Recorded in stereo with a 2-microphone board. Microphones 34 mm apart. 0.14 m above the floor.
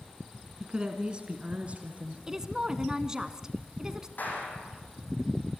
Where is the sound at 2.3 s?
20° right (ahead or behind), 1.1 m.